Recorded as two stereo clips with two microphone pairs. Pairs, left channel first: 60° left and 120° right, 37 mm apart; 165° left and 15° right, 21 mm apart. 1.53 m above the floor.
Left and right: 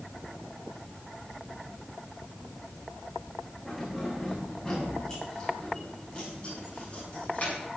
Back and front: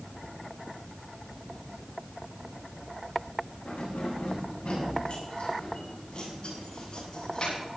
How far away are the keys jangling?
About 8 m.